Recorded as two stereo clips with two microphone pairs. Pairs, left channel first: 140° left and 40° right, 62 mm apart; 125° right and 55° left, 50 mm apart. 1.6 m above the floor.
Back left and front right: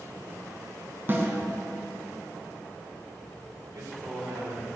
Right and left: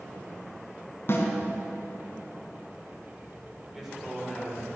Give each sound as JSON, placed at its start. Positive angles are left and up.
{"t": 1.1, "sound": "a snare drum", "azimuth_deg": -95, "distance_m": 3.0}
{"t": 3.6, "sound": "a man speaking", "azimuth_deg": -25, "distance_m": 6.0}